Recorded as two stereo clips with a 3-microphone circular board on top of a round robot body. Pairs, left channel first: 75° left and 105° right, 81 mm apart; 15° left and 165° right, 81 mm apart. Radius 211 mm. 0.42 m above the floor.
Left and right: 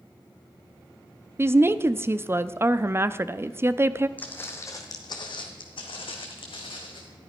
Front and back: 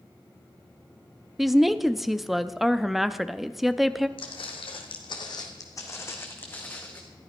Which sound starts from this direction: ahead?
Footsteps, at 4.2 s.